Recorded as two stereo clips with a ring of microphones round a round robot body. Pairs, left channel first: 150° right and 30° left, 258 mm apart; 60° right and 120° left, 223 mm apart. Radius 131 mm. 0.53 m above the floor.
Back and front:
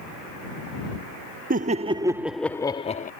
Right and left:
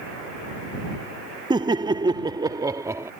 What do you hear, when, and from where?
1.5 s laughter: 60° left; by 3.1 s 170° right